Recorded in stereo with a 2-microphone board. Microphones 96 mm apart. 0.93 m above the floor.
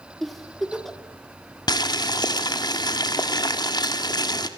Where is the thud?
No thud in this recording.